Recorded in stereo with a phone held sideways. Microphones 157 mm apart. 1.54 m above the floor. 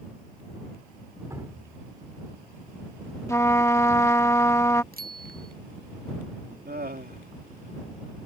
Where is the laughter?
85° right.